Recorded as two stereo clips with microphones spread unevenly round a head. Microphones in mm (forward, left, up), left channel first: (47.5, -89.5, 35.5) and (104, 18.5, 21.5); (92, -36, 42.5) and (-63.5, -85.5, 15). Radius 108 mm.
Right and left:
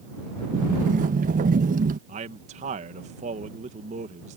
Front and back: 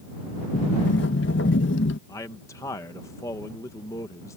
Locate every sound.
0.5 s a sliding door: 55° left
2.1 s a man speaking: 95° left